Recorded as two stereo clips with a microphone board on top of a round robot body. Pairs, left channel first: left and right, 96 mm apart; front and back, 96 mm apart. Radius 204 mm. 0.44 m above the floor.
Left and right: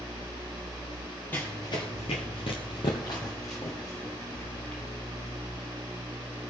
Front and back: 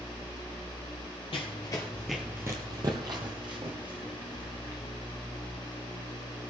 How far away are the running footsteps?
About 0.7 m.